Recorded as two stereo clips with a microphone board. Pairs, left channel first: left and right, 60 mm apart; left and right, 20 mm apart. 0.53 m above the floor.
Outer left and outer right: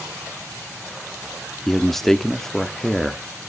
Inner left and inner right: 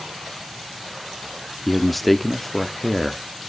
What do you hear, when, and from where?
1.7 s a man speaking: 5° left (ahead or behind), 0.7 m